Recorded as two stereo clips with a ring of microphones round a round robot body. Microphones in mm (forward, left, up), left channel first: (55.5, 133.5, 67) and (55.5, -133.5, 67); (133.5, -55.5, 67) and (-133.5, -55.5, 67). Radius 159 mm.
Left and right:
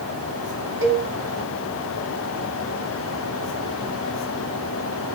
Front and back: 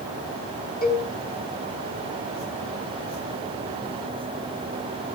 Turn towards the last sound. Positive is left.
turn(degrees=-50)